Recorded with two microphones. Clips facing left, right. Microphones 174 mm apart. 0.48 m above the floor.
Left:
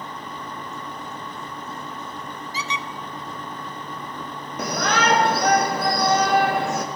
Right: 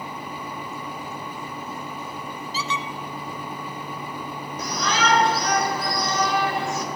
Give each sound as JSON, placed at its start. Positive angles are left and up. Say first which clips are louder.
{"t": 2.5, "sound": "a squeak", "louder": "right 2 dB", "side_deg": 15, "distance_m": 0.5}
{"t": 4.6, "sound": "a shout", "louder": "left 3 dB", "side_deg": 55, "distance_m": 2.5}